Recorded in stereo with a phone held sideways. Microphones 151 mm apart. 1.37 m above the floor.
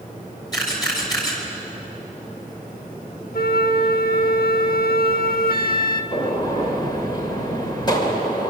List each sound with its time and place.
0.5 s a camera shutter: 25° left (ahead or behind), 5.5 m
3.3 s a flute: 80° left, 1.1 m
6.1 s a gunshot: 30° left (ahead or behind), 2 m